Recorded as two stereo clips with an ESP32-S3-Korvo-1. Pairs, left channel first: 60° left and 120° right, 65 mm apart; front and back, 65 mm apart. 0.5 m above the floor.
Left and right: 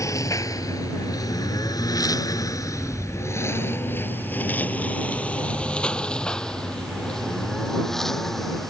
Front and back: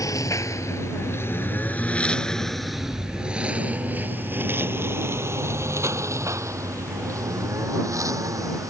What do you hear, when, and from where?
0.0 s a lawn mower: 25° left; by 8.7 s 145° left